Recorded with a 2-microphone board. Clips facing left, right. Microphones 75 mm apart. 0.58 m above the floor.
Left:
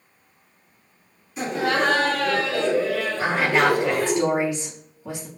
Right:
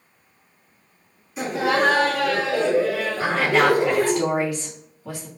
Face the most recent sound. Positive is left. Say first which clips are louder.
# right 1 dB
turn(degrees=25)  # may be behind; listen again after turning